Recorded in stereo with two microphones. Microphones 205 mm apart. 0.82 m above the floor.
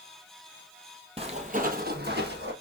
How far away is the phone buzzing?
No phone buzzing in this recording.